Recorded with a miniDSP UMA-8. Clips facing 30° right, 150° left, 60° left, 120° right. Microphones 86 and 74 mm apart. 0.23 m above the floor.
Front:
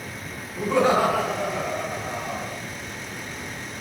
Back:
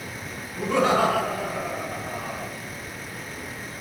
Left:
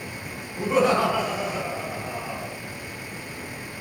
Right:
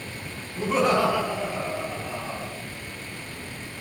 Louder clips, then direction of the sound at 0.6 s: Front 1 dB, left 1 dB; 30° left.